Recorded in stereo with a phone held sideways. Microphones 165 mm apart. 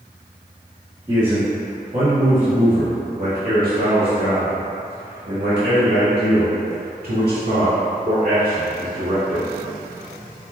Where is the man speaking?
25° right (ahead or behind), 1.8 m; by 9.5 s 60° right (ahead or behind), 4 m.